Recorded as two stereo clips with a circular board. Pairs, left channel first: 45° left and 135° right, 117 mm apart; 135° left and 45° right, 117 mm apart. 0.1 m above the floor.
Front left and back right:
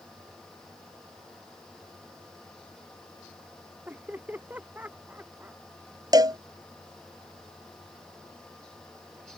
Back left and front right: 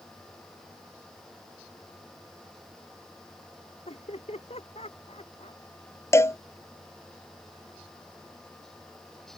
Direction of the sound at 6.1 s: 170° right.